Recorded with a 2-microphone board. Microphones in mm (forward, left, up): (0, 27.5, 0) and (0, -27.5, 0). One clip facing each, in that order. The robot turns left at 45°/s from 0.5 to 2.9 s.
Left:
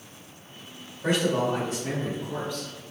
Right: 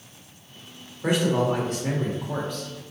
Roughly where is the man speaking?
Ahead.